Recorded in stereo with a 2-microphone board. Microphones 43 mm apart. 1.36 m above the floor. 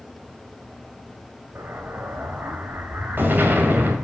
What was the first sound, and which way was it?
An explosion, 50° right (ahead or behind).